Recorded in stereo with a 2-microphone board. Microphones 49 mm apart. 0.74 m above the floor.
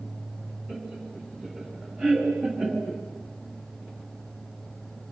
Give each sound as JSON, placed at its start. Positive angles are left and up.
{"t": 0.7, "sound": "laughter", "side_deg": -5, "distance_m": 7.5}